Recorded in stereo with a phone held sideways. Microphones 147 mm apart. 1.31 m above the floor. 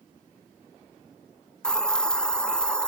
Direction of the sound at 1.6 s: 5° left (ahead or behind).